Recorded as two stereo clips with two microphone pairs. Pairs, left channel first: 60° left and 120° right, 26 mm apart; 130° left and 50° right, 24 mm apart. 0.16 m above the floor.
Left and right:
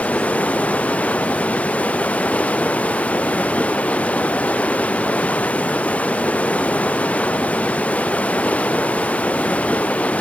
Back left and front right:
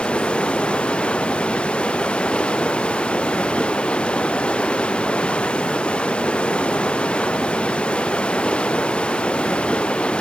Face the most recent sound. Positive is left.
turn(degrees=90)